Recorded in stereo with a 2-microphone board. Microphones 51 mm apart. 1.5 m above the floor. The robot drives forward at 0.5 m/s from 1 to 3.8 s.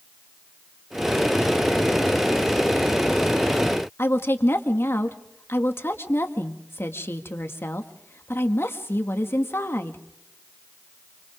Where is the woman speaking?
50° left (ahead or behind), 2.0 m.